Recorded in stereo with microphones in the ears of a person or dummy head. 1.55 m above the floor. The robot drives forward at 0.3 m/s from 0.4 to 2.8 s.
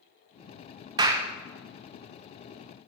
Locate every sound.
1.0 s a clap: 20° right (ahead or behind), 0.5 m